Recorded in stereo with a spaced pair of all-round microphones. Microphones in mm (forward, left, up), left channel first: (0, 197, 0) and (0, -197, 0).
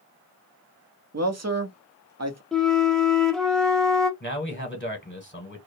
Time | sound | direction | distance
1.1 | a man speaking | 40° right (ahead or behind) | 0.7 m
2.5 | a flute | centre (ahead or behind) | 0.6 m
4.2 | a man speaking | 30° left (ahead or behind) | 1.0 m